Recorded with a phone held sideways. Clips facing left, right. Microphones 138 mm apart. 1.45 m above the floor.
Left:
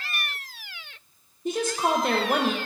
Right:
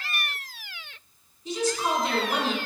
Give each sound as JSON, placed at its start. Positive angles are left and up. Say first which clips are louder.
{"t": 1.4, "sound": "a woman speaking", "louder": "left 2 dB", "side_deg": 55, "distance_m": 0.6}